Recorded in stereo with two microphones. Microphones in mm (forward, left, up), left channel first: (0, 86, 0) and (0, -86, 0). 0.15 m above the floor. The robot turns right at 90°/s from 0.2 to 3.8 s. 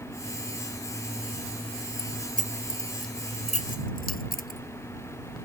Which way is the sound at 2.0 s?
65° right (ahead or behind).